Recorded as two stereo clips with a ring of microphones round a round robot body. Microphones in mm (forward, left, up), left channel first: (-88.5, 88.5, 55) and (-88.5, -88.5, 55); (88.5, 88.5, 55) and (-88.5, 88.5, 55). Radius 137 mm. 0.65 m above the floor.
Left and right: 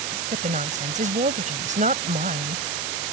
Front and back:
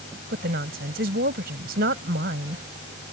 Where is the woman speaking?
135° right.